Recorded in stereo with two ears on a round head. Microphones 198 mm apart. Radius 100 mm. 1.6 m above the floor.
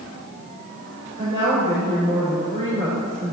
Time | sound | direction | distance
1.2 | a woman speaking | 20° left (ahead or behind) | 4.5 m